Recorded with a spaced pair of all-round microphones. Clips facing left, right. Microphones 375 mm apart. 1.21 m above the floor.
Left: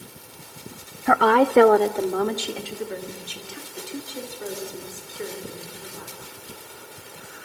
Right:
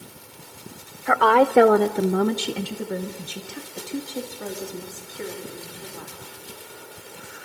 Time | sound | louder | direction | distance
1.1 | a woman speaking | even | 50° left (ahead or behind) | 0.7 m